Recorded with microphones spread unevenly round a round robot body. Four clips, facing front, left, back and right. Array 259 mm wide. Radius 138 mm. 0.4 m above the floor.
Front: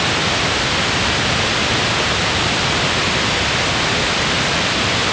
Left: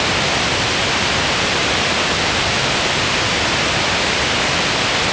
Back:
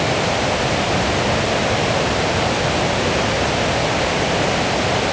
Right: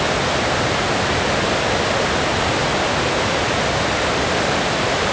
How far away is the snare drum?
No snare drum in this recording.